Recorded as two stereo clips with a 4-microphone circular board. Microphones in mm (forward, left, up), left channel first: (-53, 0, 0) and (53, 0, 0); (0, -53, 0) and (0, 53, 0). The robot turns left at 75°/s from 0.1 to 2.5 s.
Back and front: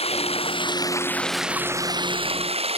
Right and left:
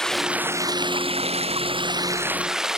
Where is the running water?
175° right; by 2.8 s 5° left.